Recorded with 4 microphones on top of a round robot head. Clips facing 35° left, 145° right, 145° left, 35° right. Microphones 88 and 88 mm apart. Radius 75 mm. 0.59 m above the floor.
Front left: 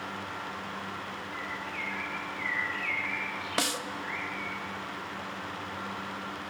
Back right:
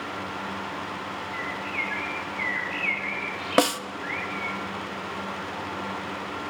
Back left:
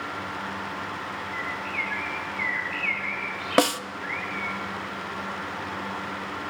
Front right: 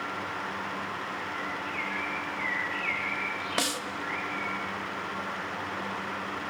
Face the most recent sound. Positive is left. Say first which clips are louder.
# back right 11 dB, back left 12 dB
turn(degrees=180)